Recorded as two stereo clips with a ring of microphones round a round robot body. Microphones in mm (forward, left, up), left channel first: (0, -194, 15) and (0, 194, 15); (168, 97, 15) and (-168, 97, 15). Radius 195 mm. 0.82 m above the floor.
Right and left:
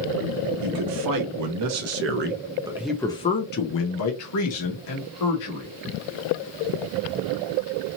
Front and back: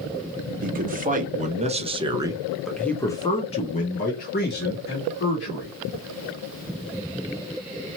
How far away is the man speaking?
About 1.3 m.